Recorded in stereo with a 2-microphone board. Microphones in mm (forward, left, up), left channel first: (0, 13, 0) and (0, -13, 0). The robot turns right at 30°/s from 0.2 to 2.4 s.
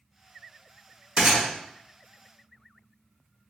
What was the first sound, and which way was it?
A gunshot, 50° right (ahead or behind).